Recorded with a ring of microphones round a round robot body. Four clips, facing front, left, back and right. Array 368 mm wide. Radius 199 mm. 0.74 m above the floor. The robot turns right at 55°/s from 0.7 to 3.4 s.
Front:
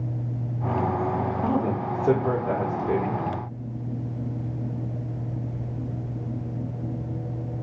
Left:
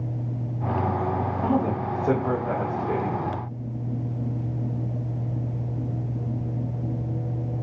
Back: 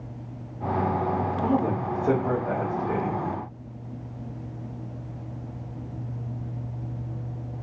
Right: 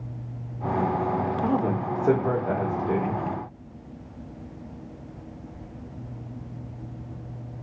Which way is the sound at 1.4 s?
105° right.